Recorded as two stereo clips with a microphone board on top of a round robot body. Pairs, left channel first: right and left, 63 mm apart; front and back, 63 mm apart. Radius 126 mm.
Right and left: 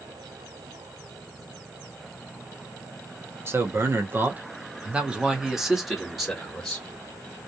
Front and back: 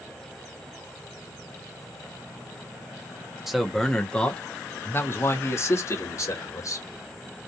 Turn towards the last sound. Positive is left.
turn(degrees=-5)